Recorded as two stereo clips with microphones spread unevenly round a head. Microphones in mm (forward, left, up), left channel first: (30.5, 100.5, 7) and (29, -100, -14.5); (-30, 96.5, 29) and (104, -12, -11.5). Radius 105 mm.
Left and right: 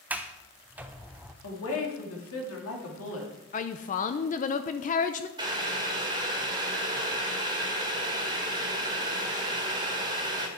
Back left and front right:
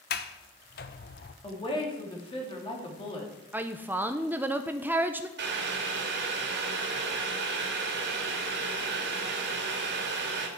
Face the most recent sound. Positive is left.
turn(degrees=-25)